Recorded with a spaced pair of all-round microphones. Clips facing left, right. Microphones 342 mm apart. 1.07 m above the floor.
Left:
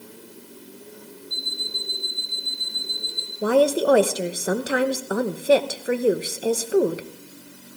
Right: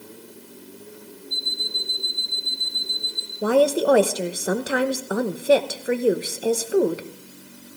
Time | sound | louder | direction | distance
1.3 | an alarm clock | right 1 dB | 20° left (ahead or behind) | 5.5 m
3.4 | a woman speaking | even | centre (ahead or behind) | 0.9 m